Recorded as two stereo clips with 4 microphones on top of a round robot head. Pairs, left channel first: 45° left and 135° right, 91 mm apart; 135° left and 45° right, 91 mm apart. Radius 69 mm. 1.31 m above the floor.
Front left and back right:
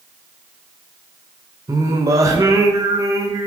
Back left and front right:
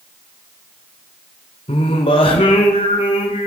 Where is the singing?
170° left, 1.7 m.